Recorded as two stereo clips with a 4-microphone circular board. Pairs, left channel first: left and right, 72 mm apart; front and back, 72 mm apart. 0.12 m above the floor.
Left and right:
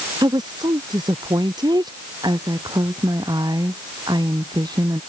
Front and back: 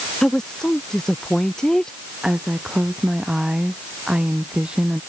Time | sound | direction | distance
0.2 | a woman speaking | 85° right | ?
2.2 | a woman speaking | 100° right | ?